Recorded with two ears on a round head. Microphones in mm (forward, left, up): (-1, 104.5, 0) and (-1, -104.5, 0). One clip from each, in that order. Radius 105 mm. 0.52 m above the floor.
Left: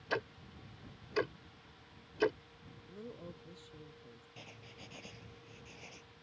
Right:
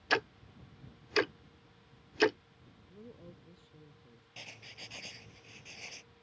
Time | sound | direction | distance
0.1 | ticking | 65° right (ahead or behind) | ?
2.9 | a woman speaking | 30° left (ahead or behind) | ?
4.4 | writing | 55° right (ahead or behind) | ?